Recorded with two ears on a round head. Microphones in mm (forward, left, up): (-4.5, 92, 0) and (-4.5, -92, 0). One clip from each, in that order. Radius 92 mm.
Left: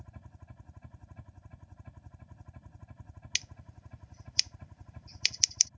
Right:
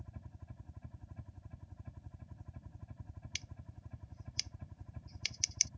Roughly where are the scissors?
Left.